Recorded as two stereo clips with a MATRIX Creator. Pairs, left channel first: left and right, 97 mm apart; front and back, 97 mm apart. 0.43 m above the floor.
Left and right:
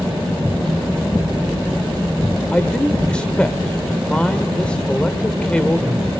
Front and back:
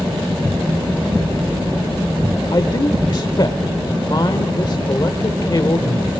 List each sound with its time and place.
2.5 s a man speaking: 15° left, 1.0 m